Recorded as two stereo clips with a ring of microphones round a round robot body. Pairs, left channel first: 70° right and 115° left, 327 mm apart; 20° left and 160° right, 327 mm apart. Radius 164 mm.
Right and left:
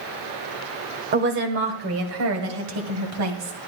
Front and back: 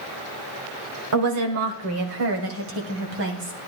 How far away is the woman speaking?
About 1.5 m.